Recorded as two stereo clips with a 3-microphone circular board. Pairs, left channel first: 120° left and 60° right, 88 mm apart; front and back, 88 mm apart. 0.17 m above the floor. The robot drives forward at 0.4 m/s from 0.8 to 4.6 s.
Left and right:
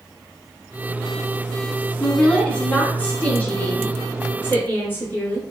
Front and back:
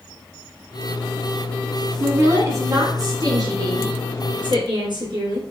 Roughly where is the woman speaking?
Behind.